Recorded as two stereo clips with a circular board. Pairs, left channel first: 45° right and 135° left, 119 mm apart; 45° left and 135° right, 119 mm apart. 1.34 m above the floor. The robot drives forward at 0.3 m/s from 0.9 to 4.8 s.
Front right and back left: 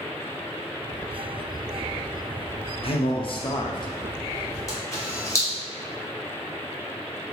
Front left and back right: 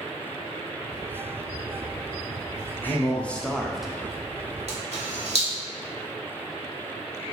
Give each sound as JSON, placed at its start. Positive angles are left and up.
{"t": 2.8, "sound": "a man speaking", "azimuth_deg": -25, "distance_m": 0.7}
{"t": 4.7, "sound": "a camera shutter", "azimuth_deg": -110, "distance_m": 0.9}